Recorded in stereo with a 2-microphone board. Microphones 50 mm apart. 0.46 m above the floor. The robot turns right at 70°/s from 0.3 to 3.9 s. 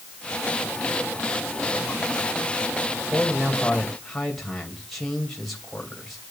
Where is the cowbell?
No cowbell in this recording.